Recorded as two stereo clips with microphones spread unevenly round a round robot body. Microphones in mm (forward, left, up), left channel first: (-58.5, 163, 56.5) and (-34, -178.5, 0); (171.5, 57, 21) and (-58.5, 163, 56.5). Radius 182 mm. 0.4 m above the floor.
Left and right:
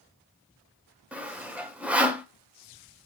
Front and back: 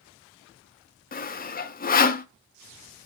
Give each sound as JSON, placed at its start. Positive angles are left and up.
{"t": 1.1, "sound": "sawing", "azimuth_deg": -15, "distance_m": 0.8}